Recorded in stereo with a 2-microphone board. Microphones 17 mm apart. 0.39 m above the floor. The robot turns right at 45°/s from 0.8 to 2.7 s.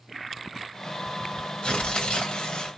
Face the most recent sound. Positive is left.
turn(degrees=115)